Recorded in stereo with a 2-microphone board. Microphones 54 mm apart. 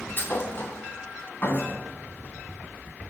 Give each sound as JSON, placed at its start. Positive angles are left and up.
{"t": 0.2, "sound": "a thud", "side_deg": 45, "distance_m": 3.0}